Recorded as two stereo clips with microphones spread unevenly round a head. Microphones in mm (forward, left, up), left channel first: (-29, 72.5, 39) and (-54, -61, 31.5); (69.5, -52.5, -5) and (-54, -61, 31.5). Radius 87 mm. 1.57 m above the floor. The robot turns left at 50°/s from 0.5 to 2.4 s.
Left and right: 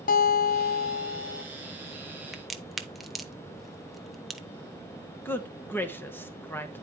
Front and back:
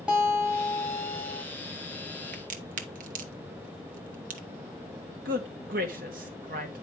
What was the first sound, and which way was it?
A guitar, 100° left.